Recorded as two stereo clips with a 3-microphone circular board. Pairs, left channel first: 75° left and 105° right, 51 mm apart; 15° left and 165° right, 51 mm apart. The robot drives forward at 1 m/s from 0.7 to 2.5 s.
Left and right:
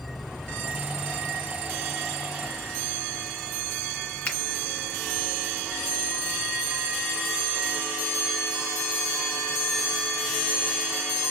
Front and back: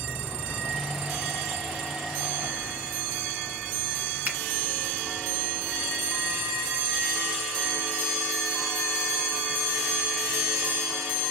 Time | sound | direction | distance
4.2 | a finger snap | 140° left | 2 m